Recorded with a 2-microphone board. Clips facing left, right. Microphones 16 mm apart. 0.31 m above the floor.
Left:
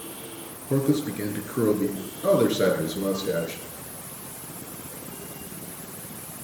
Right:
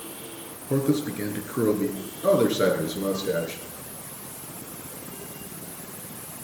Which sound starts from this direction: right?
A man speaking, at 0.7 s.